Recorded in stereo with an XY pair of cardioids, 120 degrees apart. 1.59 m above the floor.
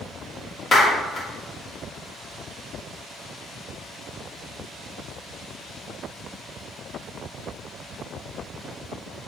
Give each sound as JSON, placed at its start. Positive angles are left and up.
{"t": 0.7, "sound": "a clap", "azimuth_deg": 30, "distance_m": 2.5}